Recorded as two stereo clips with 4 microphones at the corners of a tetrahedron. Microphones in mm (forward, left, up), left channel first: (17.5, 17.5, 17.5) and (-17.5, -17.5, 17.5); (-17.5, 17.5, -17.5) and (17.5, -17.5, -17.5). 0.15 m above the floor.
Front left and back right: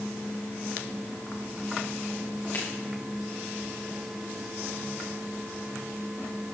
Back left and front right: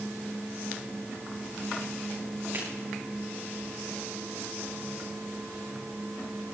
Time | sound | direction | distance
2.5 | a finger snap | straight ahead | 9.5 m